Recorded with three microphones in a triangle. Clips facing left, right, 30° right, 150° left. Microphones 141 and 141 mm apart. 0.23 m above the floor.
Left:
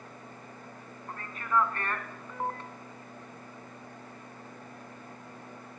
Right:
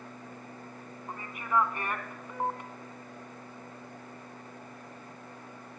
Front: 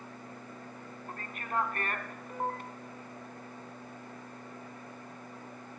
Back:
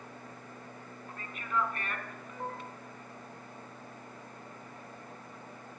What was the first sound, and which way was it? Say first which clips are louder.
A man speaking: even, even; 20° right.